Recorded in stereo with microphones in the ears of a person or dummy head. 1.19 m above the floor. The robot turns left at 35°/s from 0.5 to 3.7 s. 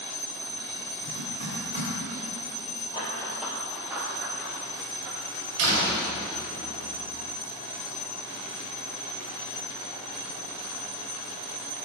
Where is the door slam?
85° right, 3.5 m.